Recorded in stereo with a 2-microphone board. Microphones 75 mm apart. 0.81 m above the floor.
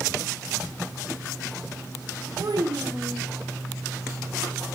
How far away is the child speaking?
About 1.7 m.